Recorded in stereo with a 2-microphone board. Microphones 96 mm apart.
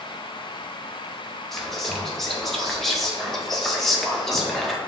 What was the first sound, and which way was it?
Whispering, 5° left (ahead or behind).